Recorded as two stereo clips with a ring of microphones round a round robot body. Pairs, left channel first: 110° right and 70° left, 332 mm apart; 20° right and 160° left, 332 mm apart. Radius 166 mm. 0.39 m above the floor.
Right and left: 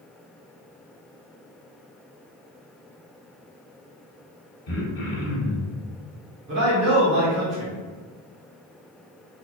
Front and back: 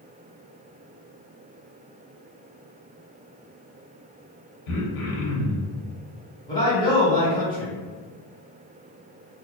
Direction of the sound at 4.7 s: 60° right.